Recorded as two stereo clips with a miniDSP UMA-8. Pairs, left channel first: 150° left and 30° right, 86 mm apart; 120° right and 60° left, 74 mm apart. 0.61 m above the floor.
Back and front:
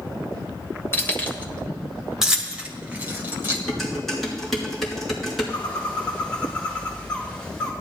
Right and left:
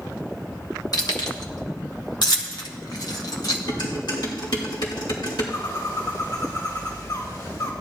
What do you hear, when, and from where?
0.9 s keys jangling: 150° right, 1.4 m; by 3.6 s 90° right, 2 m
3.7 s dishes clattering: 125° right, 5 m
5.5 s a bird: 135° right, 5 m